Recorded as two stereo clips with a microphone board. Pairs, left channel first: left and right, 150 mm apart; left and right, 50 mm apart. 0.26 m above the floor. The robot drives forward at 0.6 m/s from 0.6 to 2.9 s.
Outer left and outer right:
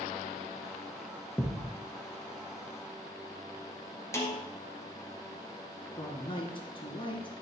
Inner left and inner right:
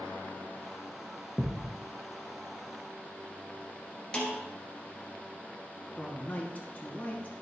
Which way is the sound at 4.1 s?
20° left (ahead or behind).